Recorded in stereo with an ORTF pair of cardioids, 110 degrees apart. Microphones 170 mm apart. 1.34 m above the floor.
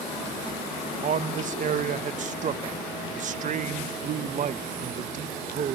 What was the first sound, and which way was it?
A man speaking, 45° right.